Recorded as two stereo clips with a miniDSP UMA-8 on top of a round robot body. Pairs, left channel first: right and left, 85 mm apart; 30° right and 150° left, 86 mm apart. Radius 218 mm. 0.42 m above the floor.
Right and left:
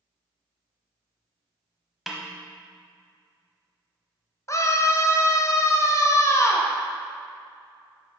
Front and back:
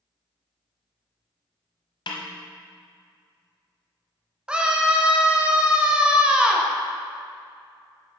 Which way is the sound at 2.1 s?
Straight ahead.